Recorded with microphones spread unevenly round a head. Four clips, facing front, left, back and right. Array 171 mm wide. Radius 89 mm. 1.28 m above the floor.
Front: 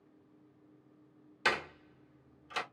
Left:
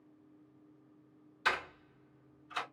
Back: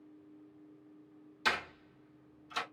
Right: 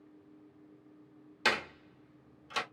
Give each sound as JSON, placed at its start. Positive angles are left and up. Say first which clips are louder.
{"t": 1.4, "sound": "a door slam", "louder": "right 2 dB, front 1 dB", "azimuth_deg": -55, "distance_m": 1.3}